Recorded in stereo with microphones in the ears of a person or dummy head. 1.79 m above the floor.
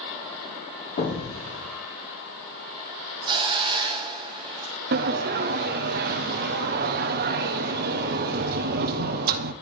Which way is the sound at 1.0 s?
45° left (ahead or behind).